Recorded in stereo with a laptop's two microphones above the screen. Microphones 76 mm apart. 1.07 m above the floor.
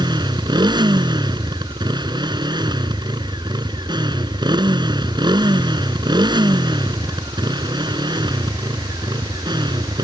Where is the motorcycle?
75° right (ahead or behind).